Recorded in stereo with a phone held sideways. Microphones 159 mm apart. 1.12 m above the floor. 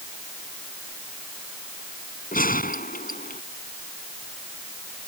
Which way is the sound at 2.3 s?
60° left (ahead or behind).